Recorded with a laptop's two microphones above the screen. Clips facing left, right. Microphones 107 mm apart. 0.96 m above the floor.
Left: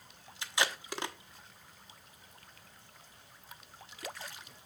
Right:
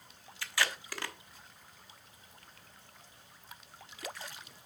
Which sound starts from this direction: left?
Tape being pulled, at 0.4 s.